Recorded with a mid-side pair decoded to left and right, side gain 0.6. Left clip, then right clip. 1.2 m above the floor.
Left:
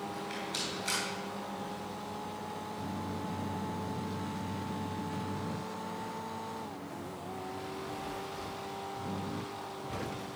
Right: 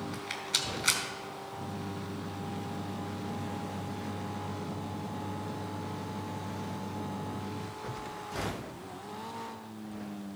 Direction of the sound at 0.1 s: 60° right.